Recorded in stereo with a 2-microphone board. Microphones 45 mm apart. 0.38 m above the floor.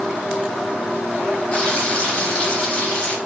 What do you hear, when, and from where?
1.5 s frying: 25° left (ahead or behind), 1.5 m